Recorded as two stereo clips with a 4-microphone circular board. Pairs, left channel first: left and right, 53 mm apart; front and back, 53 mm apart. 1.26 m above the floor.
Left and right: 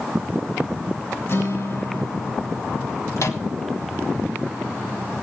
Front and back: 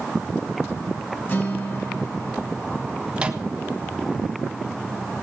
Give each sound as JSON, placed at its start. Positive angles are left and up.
{"t": 1.3, "sound": "a guitar", "azimuth_deg": 50, "distance_m": 3.0}
{"t": 3.2, "sound": "a microwave", "azimuth_deg": 110, "distance_m": 1.4}